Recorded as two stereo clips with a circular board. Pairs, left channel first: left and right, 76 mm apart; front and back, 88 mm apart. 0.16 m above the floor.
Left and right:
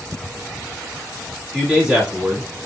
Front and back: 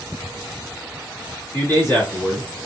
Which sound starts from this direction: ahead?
A man speaking, at 1.5 s.